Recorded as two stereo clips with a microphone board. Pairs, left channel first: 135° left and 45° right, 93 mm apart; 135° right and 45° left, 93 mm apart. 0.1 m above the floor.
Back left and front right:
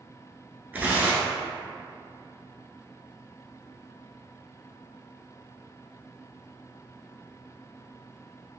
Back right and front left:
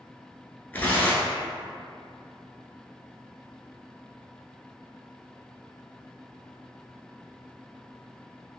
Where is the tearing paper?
90° right, 0.7 m.